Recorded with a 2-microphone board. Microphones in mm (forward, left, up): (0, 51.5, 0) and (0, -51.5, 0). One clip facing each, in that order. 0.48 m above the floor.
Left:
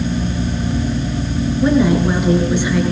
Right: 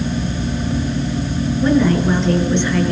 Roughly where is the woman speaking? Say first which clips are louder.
Left 1 dB; centre.